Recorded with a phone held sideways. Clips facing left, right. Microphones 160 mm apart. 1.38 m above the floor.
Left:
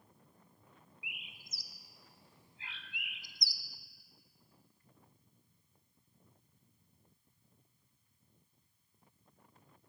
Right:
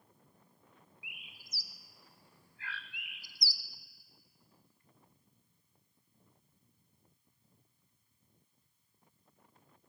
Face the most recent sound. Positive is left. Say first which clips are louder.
# left 2 dB
turn(degrees=20)  # may be behind; listen again after turning